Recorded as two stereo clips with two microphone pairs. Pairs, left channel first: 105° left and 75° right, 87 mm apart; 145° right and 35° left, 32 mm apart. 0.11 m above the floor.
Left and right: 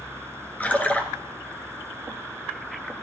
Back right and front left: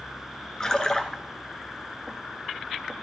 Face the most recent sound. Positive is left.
turn(degrees=165)